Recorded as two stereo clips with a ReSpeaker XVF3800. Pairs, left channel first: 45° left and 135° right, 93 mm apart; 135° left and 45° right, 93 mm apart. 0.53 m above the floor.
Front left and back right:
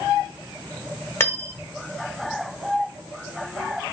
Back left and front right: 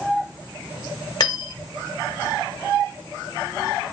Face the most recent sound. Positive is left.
turn(degrees=105)